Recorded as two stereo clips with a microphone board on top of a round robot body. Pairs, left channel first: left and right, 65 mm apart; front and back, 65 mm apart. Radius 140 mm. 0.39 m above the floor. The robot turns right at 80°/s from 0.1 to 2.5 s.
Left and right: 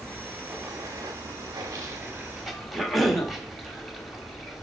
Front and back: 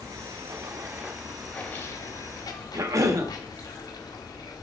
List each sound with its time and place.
0.0 s running water: 165° left, 1.3 m; by 4.6 s straight ahead, 1.3 m
2.7 s a cough: straight behind, 1.4 m